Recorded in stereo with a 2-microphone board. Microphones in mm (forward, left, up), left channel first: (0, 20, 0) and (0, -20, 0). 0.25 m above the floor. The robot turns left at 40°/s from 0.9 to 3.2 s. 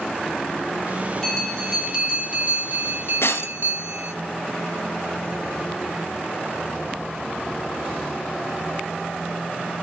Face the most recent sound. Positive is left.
turn(degrees=75)  # may be behind; listen again after turning